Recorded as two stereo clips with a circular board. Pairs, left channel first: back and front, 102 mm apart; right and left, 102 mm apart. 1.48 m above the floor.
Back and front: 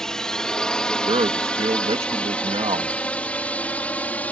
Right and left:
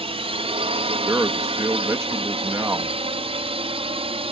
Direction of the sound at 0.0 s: 95° left.